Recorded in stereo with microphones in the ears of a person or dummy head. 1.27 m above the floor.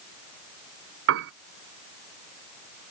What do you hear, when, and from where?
1.1 s a piano: 60° right (ahead or behind)